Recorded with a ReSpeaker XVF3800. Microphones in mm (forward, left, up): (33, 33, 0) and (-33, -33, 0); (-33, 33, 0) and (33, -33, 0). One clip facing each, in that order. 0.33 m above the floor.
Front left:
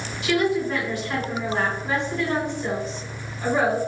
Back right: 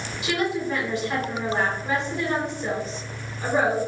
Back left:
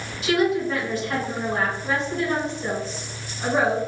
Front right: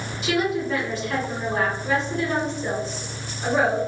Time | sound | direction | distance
0.2 | a woman speaking | 170° left | 1.9 m